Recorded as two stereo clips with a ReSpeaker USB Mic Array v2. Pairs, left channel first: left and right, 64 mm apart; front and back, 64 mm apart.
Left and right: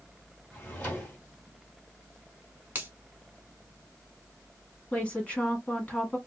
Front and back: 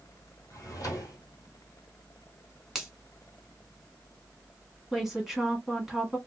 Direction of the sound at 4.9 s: 105° left.